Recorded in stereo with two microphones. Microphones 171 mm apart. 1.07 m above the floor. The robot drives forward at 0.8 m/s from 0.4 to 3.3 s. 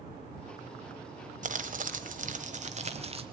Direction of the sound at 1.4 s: 50° right (ahead or behind).